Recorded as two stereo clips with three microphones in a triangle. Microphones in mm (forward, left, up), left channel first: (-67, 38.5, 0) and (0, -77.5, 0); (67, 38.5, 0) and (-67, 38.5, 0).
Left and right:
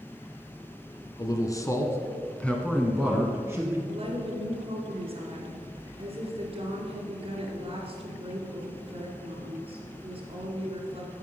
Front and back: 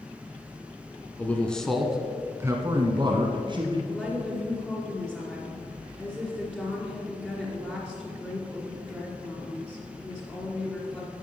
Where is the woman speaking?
85° right, 2.5 m.